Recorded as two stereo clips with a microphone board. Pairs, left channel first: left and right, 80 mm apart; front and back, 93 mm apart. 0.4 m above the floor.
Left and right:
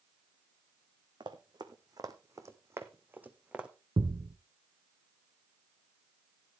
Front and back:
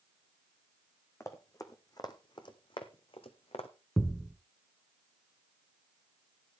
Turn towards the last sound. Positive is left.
turn(degrees=-90)